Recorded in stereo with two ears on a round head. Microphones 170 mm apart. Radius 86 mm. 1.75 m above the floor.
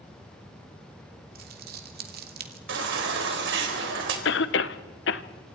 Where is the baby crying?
70° right (ahead or behind), 4 m.